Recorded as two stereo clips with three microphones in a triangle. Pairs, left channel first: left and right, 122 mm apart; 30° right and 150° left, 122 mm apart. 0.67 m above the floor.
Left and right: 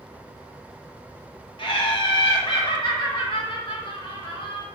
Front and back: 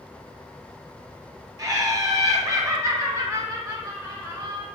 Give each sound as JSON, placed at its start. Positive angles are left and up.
{"t": 1.6, "sound": "laughter", "azimuth_deg": 100, "distance_m": 1.1}